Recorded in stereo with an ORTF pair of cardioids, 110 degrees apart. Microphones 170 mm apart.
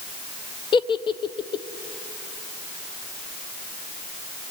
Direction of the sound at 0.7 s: 30° left.